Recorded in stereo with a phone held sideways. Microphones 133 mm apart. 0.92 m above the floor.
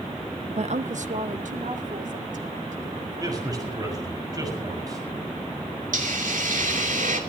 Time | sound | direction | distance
0.6 | a woman speaking | 55° right (ahead or behind) | 0.6 m
3.2 | a man speaking | 30° right (ahead or behind) | 6 m
5.9 | a hiss | 80° right | 2.5 m